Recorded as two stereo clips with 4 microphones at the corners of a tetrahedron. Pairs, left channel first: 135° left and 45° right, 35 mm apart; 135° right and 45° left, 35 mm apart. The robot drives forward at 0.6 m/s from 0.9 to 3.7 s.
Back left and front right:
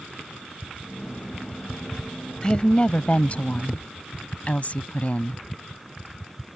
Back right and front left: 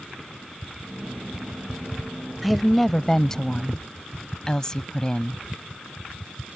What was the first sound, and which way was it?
A woman speaking, 130° left.